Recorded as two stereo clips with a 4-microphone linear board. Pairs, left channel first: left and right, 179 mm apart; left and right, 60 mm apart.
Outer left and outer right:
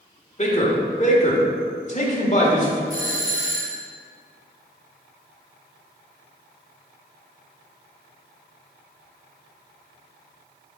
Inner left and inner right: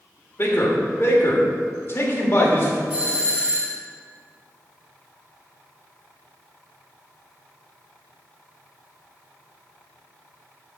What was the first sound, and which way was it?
A man speaking, 40° left (ahead or behind).